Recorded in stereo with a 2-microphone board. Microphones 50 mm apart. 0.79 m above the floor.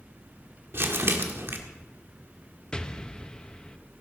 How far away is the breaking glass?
I don't hear breaking glass.